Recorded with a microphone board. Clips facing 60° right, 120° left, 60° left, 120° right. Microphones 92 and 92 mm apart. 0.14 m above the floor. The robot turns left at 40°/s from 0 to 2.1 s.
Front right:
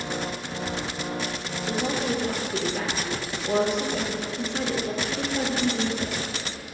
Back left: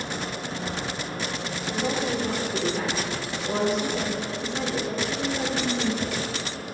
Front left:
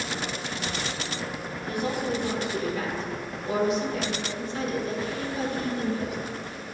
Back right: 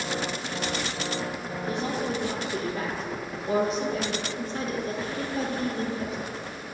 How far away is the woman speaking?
About 3 m.